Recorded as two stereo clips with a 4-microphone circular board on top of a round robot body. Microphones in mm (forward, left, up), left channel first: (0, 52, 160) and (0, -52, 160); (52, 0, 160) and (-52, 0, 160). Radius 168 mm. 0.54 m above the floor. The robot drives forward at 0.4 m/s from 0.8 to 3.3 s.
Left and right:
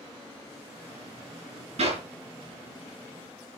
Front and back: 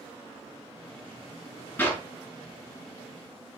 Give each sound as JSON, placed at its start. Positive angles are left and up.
{"t": 1.8, "sound": "a clap", "azimuth_deg": -75, "distance_m": 4.5}